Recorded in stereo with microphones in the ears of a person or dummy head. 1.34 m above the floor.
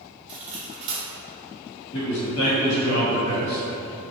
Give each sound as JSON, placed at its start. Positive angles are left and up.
{"t": 0.3, "sound": "cutlery clinking", "side_deg": -40, "distance_m": 1.1}
{"t": 1.9, "sound": "a man speaking", "side_deg": 65, "distance_m": 1.8}